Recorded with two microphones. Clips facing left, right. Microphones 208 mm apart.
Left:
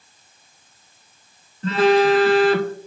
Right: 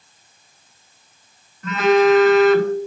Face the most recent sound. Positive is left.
turn(degrees=30)  # may be behind; listen again after turning